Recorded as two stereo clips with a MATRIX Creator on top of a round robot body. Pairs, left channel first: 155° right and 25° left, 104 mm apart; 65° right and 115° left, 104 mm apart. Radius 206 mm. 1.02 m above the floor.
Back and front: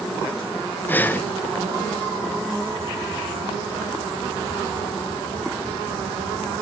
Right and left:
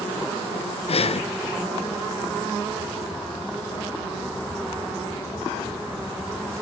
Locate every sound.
0.9 s breathing: 85° right, 0.8 m